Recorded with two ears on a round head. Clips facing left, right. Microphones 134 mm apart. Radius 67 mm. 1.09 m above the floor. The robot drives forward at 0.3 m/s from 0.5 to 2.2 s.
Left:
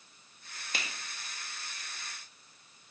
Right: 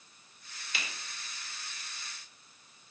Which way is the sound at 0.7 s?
40° left (ahead or behind).